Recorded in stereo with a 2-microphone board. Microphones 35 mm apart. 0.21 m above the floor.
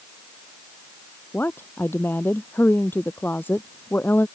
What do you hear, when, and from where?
1.3 s a woman speaking: 80° left